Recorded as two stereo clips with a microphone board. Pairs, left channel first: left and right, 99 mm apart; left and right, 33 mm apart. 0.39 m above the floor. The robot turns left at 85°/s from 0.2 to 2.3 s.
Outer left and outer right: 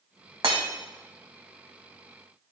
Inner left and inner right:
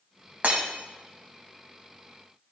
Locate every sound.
0.4 s breaking glass: 60° right (ahead or behind), 1.3 m; by 0.7 s 75° right (ahead or behind), 1.3 m